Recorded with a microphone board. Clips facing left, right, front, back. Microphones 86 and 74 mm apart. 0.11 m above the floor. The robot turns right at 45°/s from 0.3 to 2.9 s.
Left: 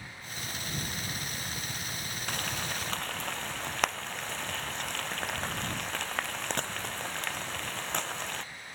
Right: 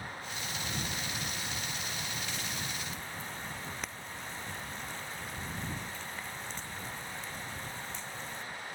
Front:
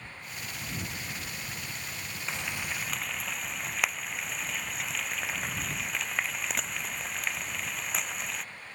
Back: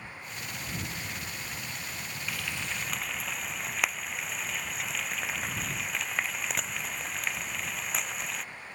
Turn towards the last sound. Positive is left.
turn(degrees=90)